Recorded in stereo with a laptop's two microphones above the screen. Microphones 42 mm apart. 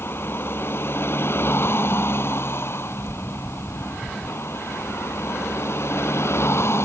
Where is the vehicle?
60° left (ahead or behind); by 6.9 s 75° left (ahead or behind).